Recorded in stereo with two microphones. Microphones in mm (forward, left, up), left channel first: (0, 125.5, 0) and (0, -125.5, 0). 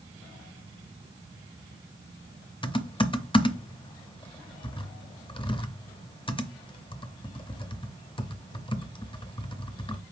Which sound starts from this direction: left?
Typing on a keyboard, at 2.6 s.